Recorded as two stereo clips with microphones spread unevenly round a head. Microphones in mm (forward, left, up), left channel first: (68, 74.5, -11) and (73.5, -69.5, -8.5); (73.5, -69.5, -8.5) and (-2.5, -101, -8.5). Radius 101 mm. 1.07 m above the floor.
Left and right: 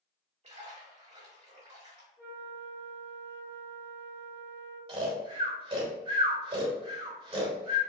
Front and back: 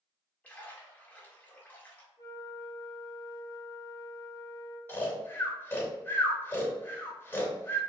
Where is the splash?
50° right, 1.5 m.